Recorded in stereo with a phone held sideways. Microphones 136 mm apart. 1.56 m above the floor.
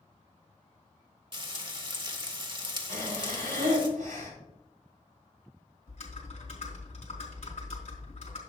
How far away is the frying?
About 1.1 m.